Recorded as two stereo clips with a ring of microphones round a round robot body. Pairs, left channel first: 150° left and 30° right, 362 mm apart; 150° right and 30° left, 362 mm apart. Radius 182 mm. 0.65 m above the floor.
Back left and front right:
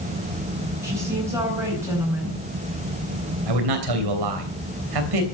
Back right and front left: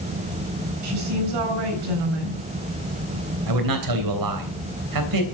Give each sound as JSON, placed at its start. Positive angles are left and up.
{"t": 0.8, "sound": "a woman speaking", "azimuth_deg": 55, "distance_m": 8.5}
{"t": 3.5, "sound": "a man speaking", "azimuth_deg": -5, "distance_m": 3.0}